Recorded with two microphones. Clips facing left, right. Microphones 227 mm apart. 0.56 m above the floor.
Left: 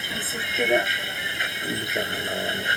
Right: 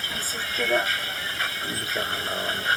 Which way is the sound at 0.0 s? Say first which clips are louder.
Left 3 dB; 20° left (ahead or behind).